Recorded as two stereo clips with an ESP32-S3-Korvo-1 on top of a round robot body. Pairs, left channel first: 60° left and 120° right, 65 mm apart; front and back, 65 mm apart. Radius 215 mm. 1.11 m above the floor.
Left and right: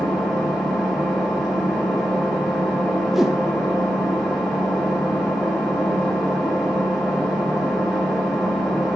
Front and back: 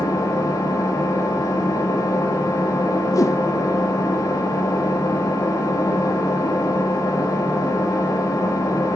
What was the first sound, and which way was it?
An engine running, 35° right.